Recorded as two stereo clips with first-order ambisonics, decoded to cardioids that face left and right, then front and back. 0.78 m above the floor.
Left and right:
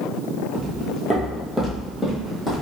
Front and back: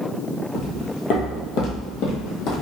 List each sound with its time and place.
0.5 s footsteps: 40° right, 0.9 m; by 2.6 s 15° left, 1.6 m